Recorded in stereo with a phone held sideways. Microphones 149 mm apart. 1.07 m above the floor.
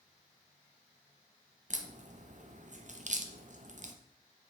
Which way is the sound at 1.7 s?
55° right (ahead or behind).